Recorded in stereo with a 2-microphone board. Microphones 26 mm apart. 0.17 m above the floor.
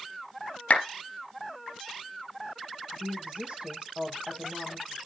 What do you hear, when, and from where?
0.7 s a clap: 65° left (ahead or behind), 3 m
2.9 s a woman speaking: 45° right (ahead or behind), 6 m